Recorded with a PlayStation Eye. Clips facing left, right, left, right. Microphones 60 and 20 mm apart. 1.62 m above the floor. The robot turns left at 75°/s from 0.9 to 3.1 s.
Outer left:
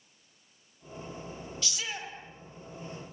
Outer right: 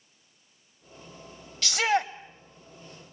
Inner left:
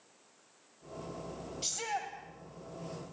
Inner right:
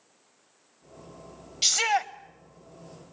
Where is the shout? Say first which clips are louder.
Outer right 15 dB, inner right 13 dB; 75° right, 1.3 m; by 2.1 s 110° right, 1.3 m.